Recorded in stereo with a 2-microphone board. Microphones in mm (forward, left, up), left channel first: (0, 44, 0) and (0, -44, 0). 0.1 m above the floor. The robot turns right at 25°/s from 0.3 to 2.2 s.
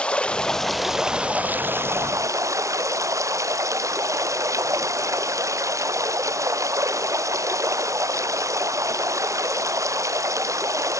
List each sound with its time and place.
0.0 s running water: 170° left; by 11.0 s 145° right